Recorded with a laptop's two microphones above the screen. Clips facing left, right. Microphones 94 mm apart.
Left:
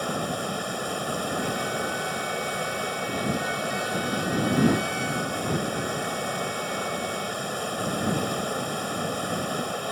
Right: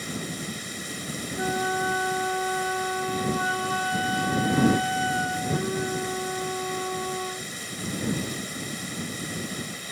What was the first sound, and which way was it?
Running water, 60° left (ahead or behind).